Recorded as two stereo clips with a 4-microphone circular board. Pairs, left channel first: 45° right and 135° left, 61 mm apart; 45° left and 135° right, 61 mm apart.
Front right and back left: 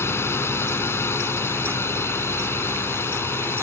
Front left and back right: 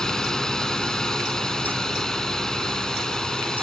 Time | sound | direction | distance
0.0 | a drone | 30° right | ?